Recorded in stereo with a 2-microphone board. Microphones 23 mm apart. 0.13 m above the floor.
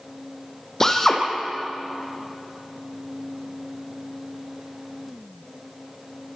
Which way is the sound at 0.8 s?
25° left (ahead or behind).